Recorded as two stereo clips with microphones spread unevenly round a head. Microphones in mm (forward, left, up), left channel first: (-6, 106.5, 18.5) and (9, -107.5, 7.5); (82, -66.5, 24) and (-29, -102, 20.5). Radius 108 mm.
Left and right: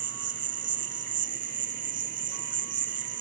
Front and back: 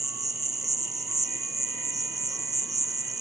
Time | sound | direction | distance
0.0 | an insect | 115° right | ?